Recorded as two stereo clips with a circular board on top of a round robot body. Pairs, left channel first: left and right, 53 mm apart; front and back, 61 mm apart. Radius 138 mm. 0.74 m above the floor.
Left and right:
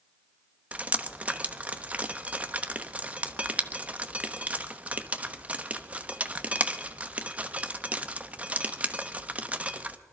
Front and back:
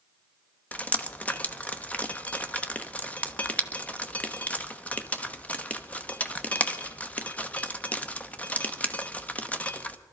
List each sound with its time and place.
0.7 s dripping: 50° right, 0.9 m